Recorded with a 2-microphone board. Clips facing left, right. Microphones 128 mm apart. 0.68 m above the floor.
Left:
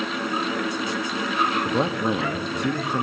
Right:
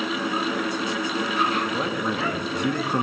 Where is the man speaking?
30° left (ahead or behind), 1.2 m; by 3.0 s 15° right (ahead or behind), 1.0 m.